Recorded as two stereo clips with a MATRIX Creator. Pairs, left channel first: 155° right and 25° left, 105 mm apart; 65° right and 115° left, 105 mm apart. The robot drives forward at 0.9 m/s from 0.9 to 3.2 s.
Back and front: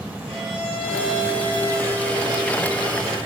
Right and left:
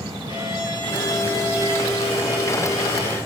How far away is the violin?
About 5.5 m.